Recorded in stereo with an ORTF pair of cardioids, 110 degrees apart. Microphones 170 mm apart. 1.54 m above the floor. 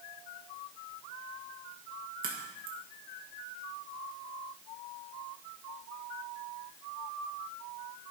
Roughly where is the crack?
Ahead right.